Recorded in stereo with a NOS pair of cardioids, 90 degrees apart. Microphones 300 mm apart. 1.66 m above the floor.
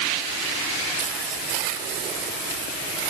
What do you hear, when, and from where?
Only background noise.